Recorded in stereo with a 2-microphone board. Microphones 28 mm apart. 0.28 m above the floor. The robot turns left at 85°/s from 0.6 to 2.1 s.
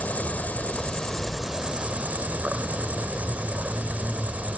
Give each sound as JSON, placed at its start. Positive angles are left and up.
{"t": 0.0, "sound": "an insect", "azimuth_deg": 70, "distance_m": 0.9}